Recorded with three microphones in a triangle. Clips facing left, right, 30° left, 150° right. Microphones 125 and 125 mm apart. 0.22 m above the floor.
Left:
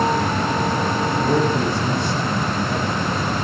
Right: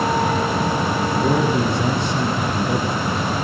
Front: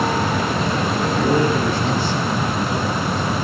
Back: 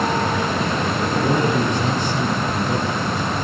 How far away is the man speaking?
About 8 m.